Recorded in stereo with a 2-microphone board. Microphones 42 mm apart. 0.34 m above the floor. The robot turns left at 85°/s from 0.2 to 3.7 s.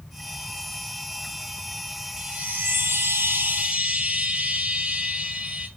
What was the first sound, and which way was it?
A chime, 20° right.